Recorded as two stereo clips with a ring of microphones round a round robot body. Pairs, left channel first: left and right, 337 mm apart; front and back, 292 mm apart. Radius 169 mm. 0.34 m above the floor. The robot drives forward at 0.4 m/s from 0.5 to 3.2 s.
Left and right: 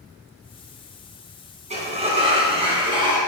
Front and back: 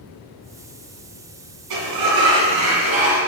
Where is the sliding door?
160° right, 1.7 m; by 3.2 s 165° right, 2.5 m.